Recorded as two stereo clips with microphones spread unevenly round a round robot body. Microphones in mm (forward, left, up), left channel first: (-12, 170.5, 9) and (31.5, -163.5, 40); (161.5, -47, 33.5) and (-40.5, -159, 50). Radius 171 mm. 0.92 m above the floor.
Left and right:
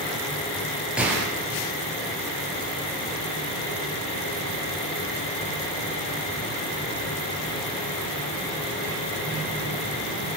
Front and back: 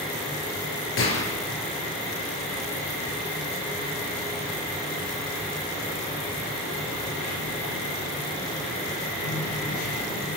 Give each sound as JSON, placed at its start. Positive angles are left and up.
{"t": 1.0, "sound": "a gunshot", "azimuth_deg": 5, "distance_m": 7.0}